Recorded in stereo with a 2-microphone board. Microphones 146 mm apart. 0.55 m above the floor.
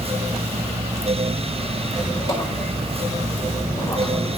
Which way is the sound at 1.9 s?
25° left (ahead or behind).